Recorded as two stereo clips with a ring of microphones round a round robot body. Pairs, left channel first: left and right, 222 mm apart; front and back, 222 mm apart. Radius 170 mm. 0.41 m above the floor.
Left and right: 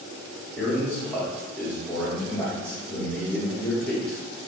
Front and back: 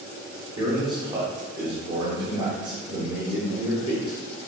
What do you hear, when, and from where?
0.6 s a man speaking: 165° left, 0.8 m